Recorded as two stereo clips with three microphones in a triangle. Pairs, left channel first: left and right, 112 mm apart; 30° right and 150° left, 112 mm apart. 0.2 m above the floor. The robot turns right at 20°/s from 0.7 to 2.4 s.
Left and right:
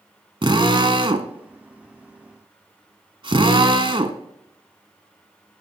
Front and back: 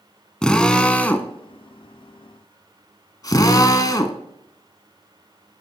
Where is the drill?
110° right, 1.0 m; by 4.2 s 75° right, 1.0 m.